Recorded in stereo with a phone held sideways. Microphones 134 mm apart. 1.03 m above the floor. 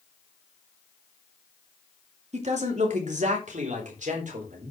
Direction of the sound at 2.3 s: 55° right (ahead or behind).